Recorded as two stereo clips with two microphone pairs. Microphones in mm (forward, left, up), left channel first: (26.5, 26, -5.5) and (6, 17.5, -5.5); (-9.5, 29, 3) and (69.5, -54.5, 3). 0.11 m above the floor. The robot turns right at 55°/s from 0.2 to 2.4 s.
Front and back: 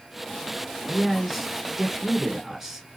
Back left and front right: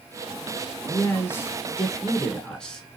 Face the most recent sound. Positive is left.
turn(degrees=-155)